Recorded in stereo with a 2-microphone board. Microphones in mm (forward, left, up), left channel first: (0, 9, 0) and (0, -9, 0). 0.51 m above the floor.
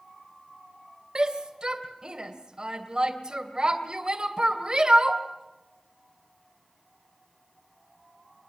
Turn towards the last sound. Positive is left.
turn(degrees=-45)  # may be behind; listen again after turning